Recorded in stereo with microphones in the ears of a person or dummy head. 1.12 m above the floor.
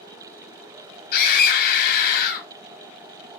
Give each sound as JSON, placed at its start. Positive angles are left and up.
{"t": 1.1, "sound": "a scream", "side_deg": 50, "distance_m": 2.5}